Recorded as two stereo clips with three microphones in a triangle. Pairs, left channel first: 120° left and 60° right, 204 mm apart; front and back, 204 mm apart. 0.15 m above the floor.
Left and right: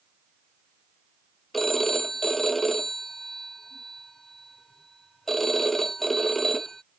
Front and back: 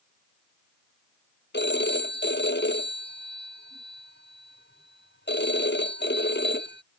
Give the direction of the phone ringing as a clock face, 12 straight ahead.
11 o'clock.